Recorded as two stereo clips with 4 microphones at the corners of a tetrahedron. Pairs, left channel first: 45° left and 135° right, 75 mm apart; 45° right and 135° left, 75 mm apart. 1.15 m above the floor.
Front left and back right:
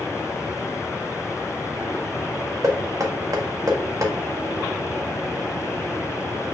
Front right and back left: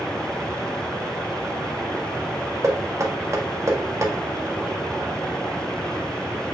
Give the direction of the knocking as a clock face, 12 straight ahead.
6 o'clock.